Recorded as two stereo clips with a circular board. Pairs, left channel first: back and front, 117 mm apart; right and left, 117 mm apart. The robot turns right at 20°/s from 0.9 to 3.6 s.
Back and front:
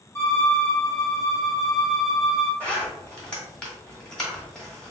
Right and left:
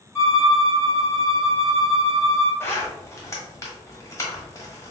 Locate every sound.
0.1 s a violin: 125° right, 1.6 m; by 2.5 s 90° right, 1.6 m
2.6 s a zipper: 120° right, 1.3 m; by 4.9 s 100° right, 1.3 m